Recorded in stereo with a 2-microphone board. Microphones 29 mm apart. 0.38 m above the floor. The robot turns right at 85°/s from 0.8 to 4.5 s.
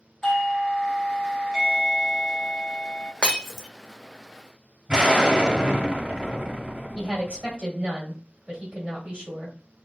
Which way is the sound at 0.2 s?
20° left (ahead or behind).